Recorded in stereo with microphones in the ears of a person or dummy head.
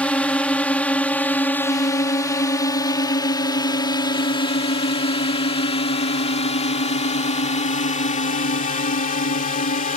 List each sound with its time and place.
0.0 s a drone: 5° left (ahead or behind); by 10.0 s 40° left (ahead or behind)